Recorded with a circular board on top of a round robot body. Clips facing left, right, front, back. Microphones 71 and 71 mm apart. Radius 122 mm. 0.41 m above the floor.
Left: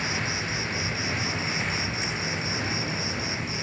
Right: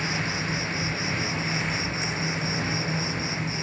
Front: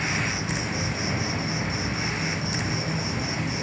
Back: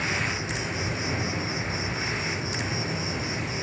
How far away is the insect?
About 0.8 m.